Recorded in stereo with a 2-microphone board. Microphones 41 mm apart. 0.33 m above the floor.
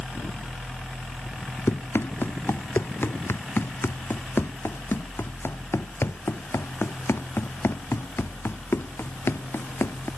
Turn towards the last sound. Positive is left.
turn(degrees=85)